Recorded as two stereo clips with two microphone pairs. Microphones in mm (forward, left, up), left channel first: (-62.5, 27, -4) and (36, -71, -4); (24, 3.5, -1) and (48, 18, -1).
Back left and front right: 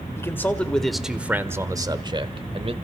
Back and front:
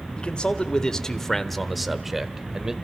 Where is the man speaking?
165° right, 1.3 m; by 2.7 s 30° right, 1.5 m.